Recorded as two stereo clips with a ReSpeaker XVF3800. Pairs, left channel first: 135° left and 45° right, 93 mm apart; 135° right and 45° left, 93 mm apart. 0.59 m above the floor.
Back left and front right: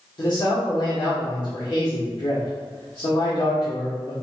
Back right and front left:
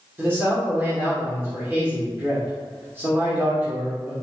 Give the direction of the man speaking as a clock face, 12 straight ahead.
8 o'clock.